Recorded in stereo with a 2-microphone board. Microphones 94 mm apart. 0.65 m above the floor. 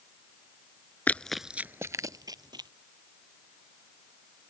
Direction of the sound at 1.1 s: 20° left (ahead or behind).